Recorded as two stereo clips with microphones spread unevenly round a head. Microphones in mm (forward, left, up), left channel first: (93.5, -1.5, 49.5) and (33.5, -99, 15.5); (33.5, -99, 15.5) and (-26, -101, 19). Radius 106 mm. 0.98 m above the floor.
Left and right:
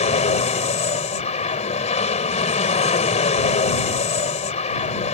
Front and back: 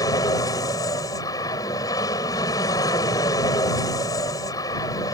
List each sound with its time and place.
0.0 s an aircraft: 35° left